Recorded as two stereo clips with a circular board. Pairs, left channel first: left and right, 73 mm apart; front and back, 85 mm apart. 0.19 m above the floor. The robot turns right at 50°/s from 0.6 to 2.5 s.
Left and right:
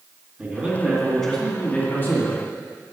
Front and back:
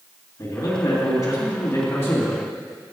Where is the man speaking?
25° right, 2.0 m; by 2.4 s 65° left, 2.0 m.